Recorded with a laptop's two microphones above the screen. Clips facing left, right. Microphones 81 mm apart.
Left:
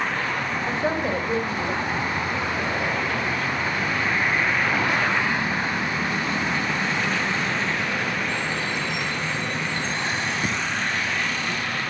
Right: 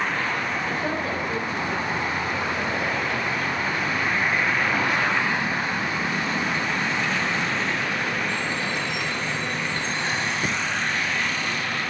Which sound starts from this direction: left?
A woman speaking, at 0.7 s.